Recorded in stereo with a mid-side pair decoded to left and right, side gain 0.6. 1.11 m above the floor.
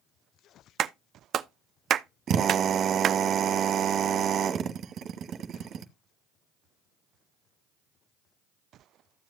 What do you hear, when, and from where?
0.8 s a clap: 50° right, 0.7 m
2.3 s a drill: 50° right, 1.3 m